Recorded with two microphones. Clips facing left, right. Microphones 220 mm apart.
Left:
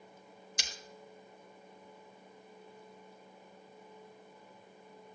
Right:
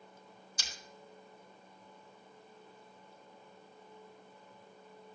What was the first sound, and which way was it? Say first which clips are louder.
Breaking glass: left 3 dB; 85° left.